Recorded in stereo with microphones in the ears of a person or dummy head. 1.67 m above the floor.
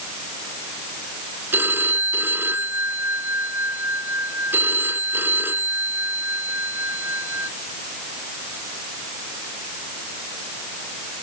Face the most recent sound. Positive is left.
turn(degrees=-10)  # may be behind; listen again after turning